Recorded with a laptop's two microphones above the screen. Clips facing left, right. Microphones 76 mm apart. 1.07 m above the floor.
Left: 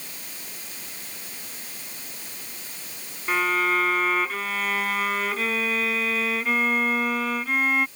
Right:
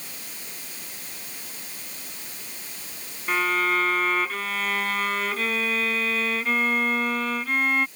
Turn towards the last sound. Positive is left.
turn(degrees=5)  # may be behind; listen again after turning